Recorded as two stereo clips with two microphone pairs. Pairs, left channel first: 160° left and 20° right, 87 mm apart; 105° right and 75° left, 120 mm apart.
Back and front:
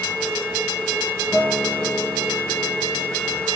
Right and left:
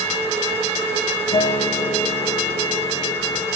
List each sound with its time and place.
1.3 s a guitar: 130° right, 3 m